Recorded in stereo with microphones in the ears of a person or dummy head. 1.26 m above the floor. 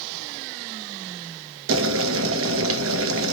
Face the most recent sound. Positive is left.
turn(degrees=-70)  # may be behind; listen again after turning